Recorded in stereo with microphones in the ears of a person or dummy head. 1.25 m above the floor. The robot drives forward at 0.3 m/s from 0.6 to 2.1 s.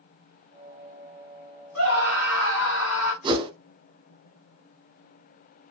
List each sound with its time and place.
1.8 s a scream: 85° left, 1.5 m; by 3.1 s 80° left, 1.5 m
3.2 s a whoosh: 20° right (ahead or behind), 0.6 m